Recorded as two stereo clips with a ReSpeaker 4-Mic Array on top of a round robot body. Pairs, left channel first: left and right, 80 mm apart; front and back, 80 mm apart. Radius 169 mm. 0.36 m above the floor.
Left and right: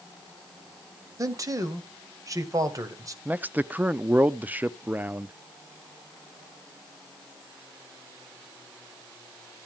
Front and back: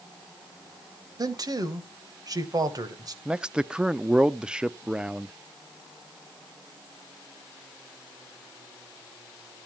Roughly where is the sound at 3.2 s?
Behind right.